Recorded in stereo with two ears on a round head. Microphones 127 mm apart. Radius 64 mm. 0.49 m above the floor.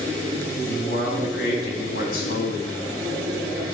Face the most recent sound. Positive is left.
turn(degrees=75)  # may be behind; listen again after turning